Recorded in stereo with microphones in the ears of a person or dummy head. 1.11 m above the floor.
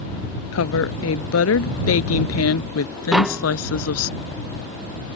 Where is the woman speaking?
80° left; by 4.1 s 85° left.